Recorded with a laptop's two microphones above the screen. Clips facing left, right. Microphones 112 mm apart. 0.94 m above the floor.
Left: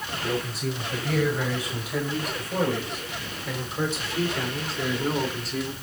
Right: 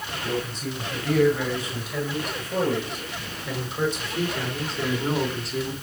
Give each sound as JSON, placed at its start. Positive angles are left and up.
{"t": 0.2, "sound": "a man speaking", "side_deg": 10, "distance_m": 5.5}